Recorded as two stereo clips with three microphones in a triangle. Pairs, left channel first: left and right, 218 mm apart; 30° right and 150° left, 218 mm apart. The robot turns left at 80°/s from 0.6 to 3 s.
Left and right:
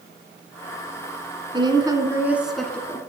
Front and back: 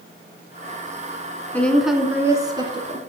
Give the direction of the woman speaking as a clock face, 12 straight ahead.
3 o'clock.